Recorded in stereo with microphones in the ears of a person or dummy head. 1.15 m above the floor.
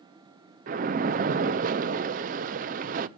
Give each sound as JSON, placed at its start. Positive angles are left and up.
{"t": 0.7, "sound": "a splash", "side_deg": -40, "distance_m": 0.6}